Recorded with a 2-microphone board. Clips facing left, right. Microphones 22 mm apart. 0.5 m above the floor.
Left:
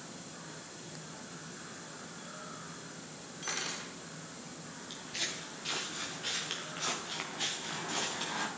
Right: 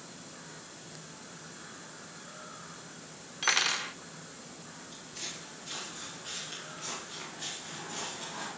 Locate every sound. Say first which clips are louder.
3.4 s cutlery clinking: right 10 dB; 45° right (ahead or behind), 0.7 m
4.9 s footsteps: left 5 dB; 65° left (ahead or behind), 4.5 m; by 8.5 s 40° left (ahead or behind), 5 m